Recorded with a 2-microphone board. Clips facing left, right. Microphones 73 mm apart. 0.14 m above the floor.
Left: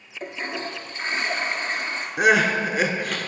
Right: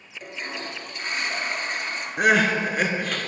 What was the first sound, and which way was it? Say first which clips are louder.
A toilet flushing: left 4 dB; 35° left (ahead or behind).